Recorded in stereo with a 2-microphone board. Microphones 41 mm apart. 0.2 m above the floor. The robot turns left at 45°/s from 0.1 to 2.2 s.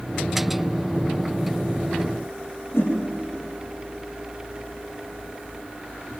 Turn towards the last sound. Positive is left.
turn(degrees=75)  # may be behind; listen again after turning